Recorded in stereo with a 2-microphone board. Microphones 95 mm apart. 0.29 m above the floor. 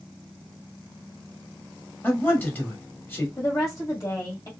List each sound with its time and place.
2.0 s a man speaking: 20° left (ahead or behind), 1.2 m
3.4 s a woman speaking: 40° left (ahead or behind), 1.3 m